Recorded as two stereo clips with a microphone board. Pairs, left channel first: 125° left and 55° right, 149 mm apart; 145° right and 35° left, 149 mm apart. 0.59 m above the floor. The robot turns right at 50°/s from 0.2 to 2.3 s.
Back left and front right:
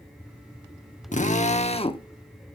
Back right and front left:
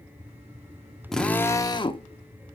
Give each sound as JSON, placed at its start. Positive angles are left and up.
{"t": 1.1, "sound": "a drill", "azimuth_deg": 130, "distance_m": 0.9}